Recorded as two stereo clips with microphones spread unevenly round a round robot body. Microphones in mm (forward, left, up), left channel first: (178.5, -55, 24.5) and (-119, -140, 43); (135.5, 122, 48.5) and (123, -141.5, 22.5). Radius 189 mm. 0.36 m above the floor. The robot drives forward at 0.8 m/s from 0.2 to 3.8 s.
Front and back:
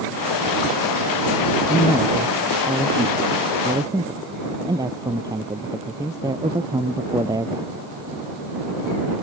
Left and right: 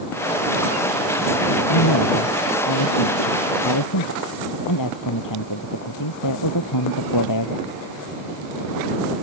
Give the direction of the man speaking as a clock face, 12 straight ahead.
8 o'clock.